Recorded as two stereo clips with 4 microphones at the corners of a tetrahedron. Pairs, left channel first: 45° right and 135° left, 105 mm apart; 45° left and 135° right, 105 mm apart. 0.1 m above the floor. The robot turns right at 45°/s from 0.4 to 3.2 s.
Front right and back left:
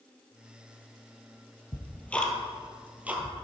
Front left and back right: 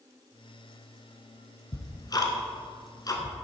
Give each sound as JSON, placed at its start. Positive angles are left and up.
{"t": 1.7, "sound": "ticking", "azimuth_deg": 10, "distance_m": 1.2}